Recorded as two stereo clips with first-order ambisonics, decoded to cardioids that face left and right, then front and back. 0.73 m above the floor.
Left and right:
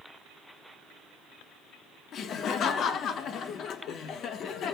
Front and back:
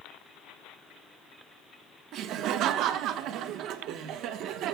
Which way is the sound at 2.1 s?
140° left.